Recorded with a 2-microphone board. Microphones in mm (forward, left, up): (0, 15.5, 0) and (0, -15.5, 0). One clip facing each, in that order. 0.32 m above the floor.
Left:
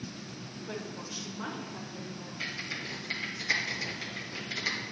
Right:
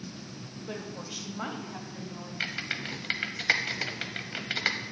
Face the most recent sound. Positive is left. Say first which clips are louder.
# right 4 dB
turn(degrees=-55)  # may be behind; listen again after turning